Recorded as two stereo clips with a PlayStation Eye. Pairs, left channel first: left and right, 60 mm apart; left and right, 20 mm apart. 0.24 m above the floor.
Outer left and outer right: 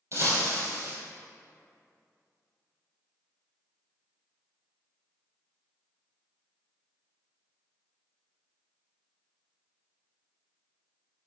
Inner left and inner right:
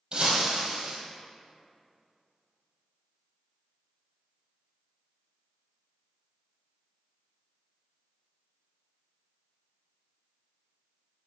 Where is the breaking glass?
50° right (ahead or behind), 3 m.